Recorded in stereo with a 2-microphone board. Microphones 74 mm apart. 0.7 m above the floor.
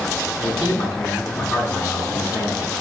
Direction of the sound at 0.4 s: 50° left (ahead or behind).